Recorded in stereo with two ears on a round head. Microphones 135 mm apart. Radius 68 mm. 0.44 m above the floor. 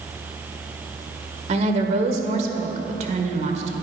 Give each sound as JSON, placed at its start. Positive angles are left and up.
{"t": 1.5, "sound": "a woman speaking", "side_deg": -45, "distance_m": 1.6}